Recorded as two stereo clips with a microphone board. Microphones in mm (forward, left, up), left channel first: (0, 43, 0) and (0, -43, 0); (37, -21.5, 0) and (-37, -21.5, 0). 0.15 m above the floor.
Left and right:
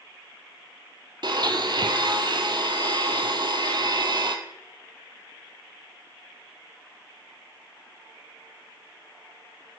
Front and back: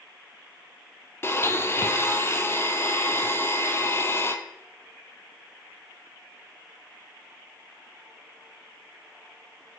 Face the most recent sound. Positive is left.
turn(degrees=-55)